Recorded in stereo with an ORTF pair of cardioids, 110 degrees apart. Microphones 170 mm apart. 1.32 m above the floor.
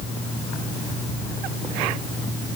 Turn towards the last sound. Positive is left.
No sound to turn to.